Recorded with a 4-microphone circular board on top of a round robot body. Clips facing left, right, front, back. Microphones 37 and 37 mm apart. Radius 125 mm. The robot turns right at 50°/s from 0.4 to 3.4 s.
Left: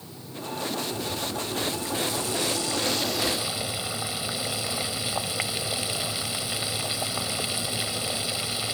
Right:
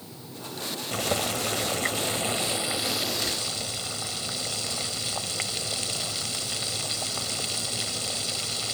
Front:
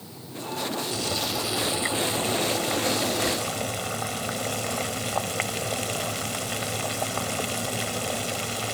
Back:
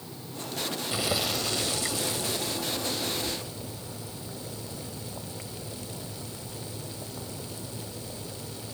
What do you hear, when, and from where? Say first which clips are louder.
0.9 s boiling: right 3 dB, front 1 dB; 110° right; by 8.8 s 15° left